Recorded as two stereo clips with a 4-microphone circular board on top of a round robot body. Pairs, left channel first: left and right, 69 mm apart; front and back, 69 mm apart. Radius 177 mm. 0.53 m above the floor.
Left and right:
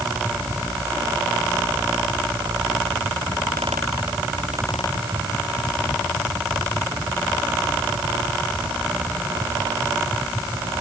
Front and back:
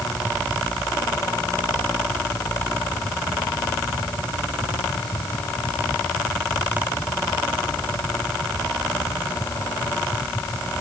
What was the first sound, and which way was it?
Only background noise.